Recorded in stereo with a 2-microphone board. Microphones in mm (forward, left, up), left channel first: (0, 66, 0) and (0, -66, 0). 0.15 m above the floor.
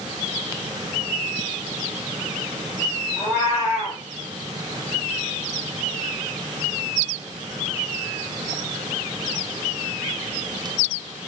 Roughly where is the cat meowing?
Centre.